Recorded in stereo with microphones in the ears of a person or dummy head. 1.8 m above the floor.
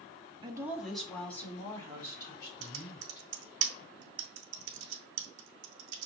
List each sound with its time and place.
0.4 s a woman speaking: 30° right (ahead or behind), 0.7 m; by 3.2 s 30° left (ahead or behind), 4 m
2.6 s typing on a keyboard: 80° right, 0.8 m